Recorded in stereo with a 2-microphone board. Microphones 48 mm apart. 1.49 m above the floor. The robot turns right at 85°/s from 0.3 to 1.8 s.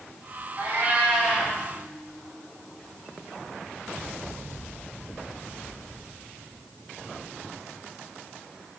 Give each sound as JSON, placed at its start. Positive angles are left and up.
{"t": 0.6, "sound": "a cat meowing", "azimuth_deg": -75, "distance_m": 1.0}